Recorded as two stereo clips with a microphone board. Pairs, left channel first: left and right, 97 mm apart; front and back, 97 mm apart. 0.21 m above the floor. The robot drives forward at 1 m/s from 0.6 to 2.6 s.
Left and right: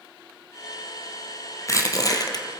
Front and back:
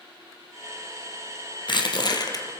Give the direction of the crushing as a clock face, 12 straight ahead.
11 o'clock.